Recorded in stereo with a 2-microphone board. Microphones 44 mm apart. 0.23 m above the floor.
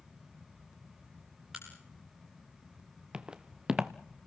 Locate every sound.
1.5 s a crack: 10° right (ahead or behind), 7.5 m
3.1 s footsteps: 20° right (ahead or behind), 1.0 m